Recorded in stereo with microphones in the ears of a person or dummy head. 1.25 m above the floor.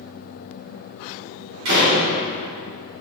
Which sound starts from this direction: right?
A door slam, at 1.6 s.